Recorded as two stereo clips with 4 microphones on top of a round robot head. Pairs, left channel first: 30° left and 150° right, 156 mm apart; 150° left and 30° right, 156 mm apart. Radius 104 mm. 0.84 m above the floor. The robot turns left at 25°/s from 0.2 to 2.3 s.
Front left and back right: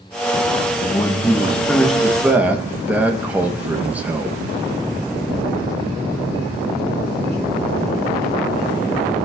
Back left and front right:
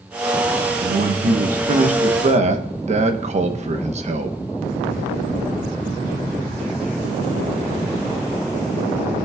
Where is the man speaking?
30° right, 1.1 m; by 4.4 s 70° right, 1.1 m.